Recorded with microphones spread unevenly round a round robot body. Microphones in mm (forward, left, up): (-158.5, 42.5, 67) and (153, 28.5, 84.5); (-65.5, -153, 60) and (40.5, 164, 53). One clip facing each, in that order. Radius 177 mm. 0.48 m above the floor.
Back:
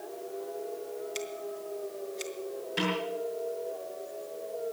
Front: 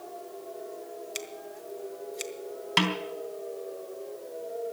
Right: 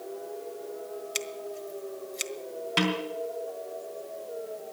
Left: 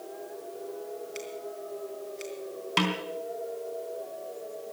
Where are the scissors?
75° right, 1.4 m.